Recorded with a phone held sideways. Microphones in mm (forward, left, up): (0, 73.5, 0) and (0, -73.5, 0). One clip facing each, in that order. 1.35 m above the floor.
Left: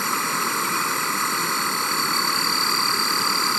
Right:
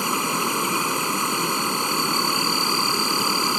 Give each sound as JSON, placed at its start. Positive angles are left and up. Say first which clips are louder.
{"t": 0.0, "sound": "an insect", "louder": "right 2 dB", "side_deg": -15}